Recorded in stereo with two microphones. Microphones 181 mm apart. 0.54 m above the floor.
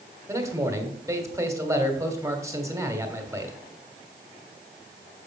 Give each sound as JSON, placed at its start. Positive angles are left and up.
{"t": 0.3, "sound": "a man speaking", "side_deg": -15, "distance_m": 1.6}